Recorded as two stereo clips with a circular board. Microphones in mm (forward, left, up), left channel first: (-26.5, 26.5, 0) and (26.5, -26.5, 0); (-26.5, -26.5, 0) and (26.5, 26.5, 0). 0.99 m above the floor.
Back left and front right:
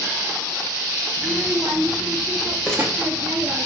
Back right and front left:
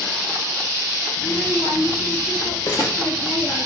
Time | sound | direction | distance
1.2 | a child speaking | 105° right | 0.7 m
2.7 | crumpling | 145° right | 1.4 m